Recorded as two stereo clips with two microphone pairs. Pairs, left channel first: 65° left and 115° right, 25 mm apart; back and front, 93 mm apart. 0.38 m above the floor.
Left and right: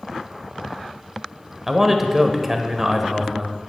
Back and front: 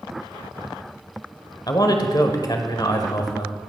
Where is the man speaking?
170° left, 1.1 m.